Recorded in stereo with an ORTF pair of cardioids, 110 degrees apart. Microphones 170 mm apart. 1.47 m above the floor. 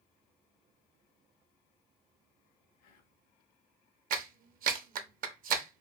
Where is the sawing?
No sawing in this recording.